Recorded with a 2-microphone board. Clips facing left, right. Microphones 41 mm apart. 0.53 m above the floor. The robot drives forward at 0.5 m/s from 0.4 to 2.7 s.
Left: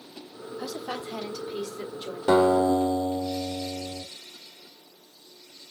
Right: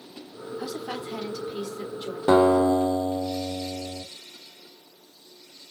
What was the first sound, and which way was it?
A woman speaking, 10° right (ahead or behind).